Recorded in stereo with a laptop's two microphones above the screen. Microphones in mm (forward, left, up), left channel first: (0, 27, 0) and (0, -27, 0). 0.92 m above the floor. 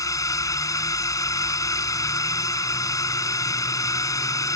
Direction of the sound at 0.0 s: 80° left.